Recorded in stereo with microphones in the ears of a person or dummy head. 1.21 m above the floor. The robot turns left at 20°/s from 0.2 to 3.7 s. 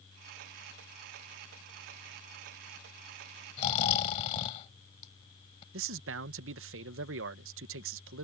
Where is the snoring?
40° left (ahead or behind); by 5.6 s 35° left (ahead or behind).